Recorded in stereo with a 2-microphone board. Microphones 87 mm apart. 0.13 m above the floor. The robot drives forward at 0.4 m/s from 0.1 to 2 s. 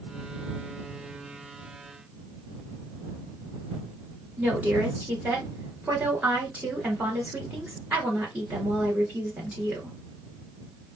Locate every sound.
4.4 s a woman speaking: 15° right (ahead or behind), 1.9 m